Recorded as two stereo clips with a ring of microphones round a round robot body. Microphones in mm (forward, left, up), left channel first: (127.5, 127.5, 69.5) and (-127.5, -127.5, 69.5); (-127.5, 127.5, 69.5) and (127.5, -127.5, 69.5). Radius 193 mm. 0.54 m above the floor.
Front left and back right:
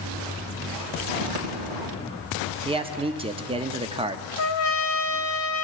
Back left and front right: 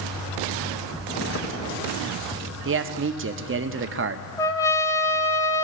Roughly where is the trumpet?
Ahead left.